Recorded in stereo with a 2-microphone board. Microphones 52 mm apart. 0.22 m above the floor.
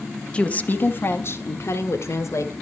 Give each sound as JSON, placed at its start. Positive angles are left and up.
{"t": 0.3, "sound": "a woman speaking", "side_deg": 20, "distance_m": 1.0}